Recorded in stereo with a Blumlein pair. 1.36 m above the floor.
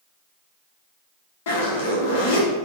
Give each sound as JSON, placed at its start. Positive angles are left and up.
{"t": 1.5, "sound": "a zipper", "azimuth_deg": 55, "distance_m": 1.1}